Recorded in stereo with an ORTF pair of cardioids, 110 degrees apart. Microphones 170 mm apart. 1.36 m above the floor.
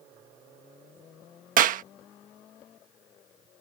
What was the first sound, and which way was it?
A clap, 60° right.